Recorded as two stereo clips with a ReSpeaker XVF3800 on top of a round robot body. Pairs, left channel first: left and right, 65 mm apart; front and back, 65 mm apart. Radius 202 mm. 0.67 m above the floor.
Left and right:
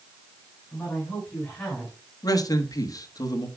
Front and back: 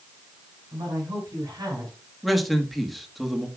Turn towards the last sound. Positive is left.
turn(degrees=90)